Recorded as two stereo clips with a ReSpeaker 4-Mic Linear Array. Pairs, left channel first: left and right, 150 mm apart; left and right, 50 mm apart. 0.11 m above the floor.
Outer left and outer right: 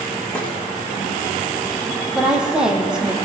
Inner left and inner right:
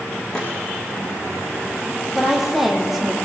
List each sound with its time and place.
0.3 s a snare drum: 15° left (ahead or behind), 8 m
2.1 s a woman speaking: 5° right (ahead or behind), 5.5 m